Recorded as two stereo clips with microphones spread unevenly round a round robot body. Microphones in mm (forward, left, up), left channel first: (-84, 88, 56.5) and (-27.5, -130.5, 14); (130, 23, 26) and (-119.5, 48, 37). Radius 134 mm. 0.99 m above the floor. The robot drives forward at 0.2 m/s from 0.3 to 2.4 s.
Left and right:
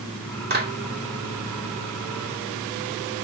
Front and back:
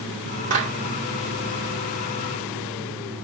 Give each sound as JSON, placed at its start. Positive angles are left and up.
{"t": 0.5, "sound": "a clap", "azimuth_deg": -120, "distance_m": 2.0}